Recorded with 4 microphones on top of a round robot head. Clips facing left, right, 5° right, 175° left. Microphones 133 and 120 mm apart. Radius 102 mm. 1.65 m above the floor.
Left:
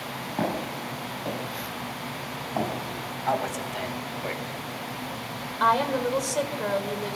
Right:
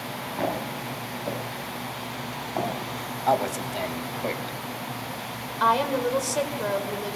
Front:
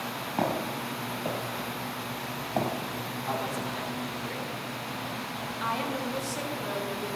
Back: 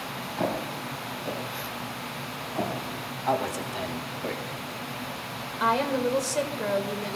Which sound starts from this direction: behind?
A woman speaking, at 5.6 s.